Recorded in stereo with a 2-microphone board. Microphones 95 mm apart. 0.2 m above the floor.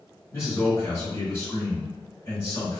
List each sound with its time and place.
0.3 s a man speaking: 30° left (ahead or behind), 1.5 m